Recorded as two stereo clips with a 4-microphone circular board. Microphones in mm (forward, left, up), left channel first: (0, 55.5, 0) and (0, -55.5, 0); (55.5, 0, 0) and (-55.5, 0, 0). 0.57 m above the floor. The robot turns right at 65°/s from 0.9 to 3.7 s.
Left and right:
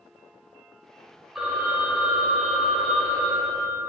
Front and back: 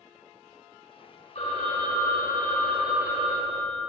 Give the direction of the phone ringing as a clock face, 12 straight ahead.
12 o'clock.